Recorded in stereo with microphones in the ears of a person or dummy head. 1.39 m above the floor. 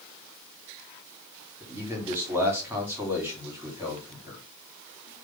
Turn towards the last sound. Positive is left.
turn(degrees=-15)  # may be behind; listen again after turning